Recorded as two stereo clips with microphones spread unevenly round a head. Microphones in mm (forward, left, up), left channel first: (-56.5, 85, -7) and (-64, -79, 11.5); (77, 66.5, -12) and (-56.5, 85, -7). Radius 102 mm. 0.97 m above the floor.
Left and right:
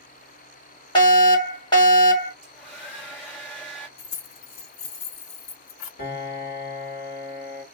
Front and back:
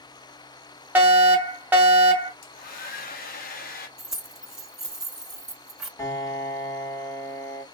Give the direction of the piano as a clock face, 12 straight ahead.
10 o'clock.